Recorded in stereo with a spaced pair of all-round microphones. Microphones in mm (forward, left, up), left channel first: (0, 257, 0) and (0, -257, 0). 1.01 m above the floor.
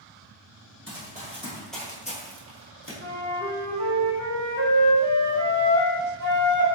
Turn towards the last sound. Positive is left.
turn(degrees=-30)  # may be behind; listen again after turning